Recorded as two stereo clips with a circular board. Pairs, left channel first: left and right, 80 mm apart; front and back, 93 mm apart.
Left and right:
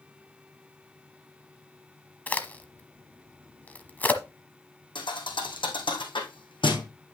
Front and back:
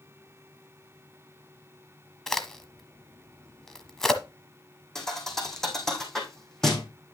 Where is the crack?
75° left, 1.1 m.